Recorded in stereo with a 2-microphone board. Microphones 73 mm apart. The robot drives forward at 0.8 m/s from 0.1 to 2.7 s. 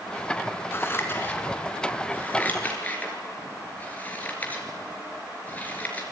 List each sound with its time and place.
0.7 s scissors: 30° left (ahead or behind), 3 m; by 6.0 s 20° left (ahead or behind), 4.5 m